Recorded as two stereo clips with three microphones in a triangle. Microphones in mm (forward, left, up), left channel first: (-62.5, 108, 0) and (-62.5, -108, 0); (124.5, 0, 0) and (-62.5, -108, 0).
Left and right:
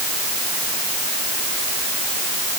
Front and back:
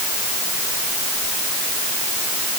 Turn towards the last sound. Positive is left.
No sound to turn to.